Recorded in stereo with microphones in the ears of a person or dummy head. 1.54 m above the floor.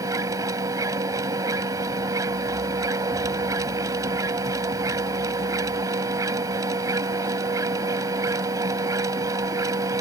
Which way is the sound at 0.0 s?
20° right (ahead or behind).